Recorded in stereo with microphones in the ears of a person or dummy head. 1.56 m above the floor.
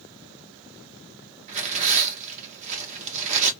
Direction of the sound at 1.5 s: 40° right (ahead or behind).